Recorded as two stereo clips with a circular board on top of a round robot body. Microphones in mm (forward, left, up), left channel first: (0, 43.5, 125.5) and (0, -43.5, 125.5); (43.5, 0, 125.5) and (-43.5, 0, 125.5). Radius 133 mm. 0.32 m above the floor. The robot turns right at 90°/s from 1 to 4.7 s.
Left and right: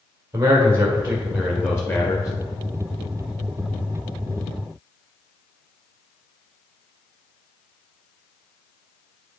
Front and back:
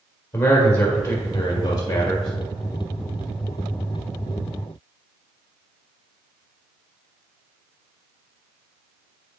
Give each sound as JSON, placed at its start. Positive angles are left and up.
{"t": 0.3, "sound": "a man speaking", "azimuth_deg": -40, "distance_m": 1.6}